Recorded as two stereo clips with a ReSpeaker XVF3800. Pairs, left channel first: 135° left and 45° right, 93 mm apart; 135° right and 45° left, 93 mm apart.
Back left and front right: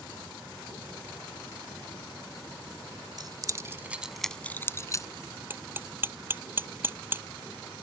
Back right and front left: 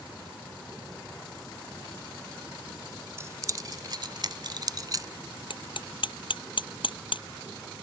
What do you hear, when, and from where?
3.2 s keys jangling: 10° right; by 5.1 s 90° left
5.5 s hammering: 110° right